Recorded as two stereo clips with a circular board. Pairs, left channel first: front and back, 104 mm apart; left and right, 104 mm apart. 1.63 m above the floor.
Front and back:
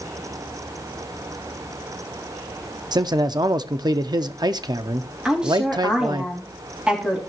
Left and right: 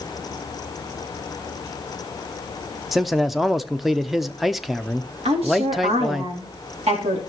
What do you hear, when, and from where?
2.9 s a man speaking: straight behind, 0.5 m
5.2 s a woman speaking: 100° right, 3.5 m